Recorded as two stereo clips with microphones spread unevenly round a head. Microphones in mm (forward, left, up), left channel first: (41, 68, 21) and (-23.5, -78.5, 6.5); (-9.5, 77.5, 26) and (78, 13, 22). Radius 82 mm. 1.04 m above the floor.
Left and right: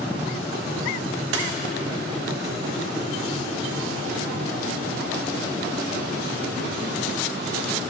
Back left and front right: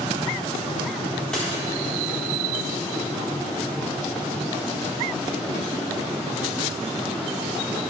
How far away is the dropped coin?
About 1.3 m.